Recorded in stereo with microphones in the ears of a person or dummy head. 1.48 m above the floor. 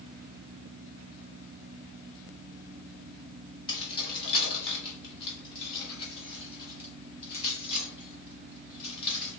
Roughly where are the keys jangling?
Left.